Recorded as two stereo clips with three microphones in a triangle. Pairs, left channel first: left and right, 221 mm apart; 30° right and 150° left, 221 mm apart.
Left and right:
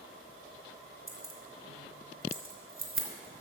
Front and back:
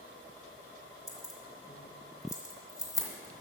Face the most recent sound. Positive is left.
turn(degrees=-105)